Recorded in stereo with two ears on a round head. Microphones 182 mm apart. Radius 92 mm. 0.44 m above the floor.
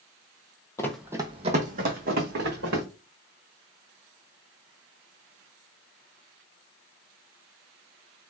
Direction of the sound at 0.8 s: 15° left (ahead or behind).